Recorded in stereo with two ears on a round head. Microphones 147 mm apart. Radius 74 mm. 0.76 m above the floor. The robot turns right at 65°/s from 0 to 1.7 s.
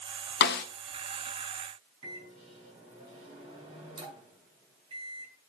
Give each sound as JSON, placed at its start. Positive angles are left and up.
{"t": 0.4, "sound": "a snare drum", "side_deg": 75, "distance_m": 1.2}
{"t": 2.0, "sound": "a microwave", "side_deg": -35, "distance_m": 6.0}